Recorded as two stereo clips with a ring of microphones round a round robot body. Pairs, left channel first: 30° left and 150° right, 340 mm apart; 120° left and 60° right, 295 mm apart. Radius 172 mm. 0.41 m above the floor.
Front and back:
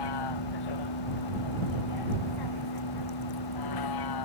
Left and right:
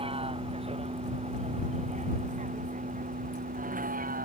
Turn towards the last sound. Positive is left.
turn(degrees=0)